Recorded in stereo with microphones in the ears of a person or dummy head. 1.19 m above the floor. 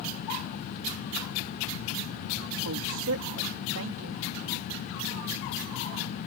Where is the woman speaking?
75° right (ahead or behind).